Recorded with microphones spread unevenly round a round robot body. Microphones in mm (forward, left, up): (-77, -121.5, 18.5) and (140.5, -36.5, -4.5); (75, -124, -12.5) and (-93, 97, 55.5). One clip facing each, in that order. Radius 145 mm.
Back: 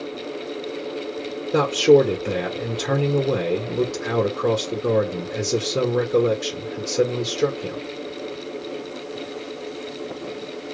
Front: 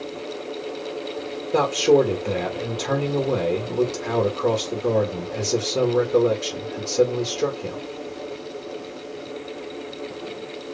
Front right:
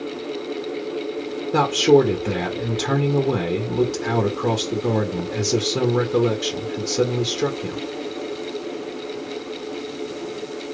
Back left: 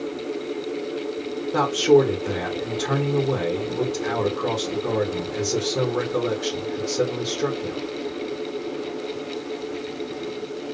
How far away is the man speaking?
About 1.1 m.